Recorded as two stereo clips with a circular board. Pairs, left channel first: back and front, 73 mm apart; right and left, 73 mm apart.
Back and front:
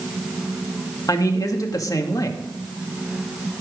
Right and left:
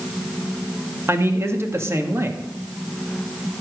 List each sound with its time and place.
1.1 s a man speaking: 145° left, 2.0 m